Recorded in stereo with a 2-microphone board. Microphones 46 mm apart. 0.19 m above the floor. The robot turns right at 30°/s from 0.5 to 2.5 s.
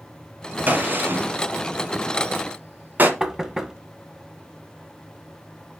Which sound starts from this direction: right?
A gunshot, at 0.7 s.